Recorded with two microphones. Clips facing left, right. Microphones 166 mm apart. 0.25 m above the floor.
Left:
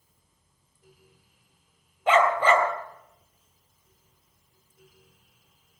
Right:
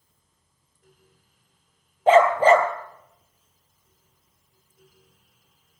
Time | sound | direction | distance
2.1 | a dog barking | 35° right (ahead or behind) | 3 m